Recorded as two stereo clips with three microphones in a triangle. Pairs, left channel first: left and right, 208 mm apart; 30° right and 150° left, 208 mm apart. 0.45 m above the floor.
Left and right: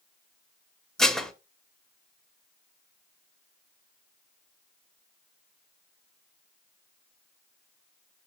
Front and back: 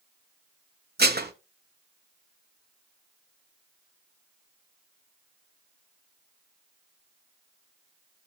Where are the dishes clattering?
175° left, 1.1 m.